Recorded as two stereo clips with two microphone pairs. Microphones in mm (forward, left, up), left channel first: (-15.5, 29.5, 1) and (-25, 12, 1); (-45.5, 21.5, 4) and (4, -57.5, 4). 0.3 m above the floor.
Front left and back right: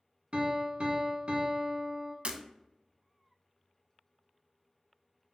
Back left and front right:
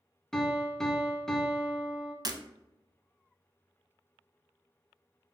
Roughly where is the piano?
Behind right.